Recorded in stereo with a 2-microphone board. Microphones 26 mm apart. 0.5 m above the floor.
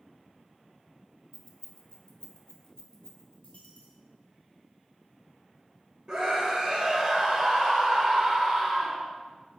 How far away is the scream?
About 2.5 m.